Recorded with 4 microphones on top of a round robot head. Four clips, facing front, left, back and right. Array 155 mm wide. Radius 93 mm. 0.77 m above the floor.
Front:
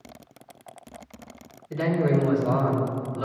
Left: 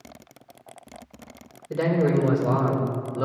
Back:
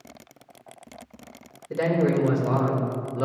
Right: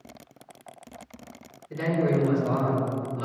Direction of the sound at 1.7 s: 135° left.